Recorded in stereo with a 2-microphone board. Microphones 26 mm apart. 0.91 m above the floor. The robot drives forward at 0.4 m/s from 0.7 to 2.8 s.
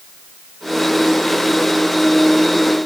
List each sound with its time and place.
Only background noise.